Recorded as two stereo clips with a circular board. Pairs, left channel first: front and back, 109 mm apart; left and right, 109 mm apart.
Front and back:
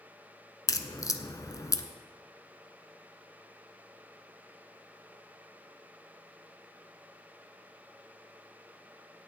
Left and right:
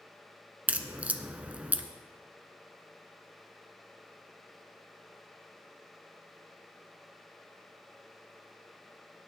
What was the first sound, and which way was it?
A crack, 20° right.